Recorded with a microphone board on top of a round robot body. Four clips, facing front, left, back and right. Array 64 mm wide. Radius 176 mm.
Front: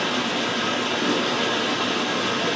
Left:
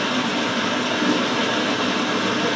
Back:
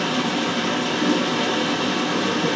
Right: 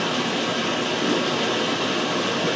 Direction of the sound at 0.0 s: 95° left.